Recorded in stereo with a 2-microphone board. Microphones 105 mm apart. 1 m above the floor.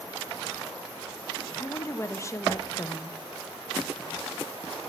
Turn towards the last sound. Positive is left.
turn(degrees=30)  # may be behind; listen again after turning